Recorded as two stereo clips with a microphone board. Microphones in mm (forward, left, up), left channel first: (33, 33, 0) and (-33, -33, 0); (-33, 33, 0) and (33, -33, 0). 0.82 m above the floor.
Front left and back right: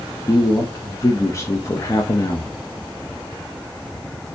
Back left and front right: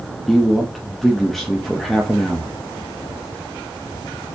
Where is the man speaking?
45° left, 0.6 m.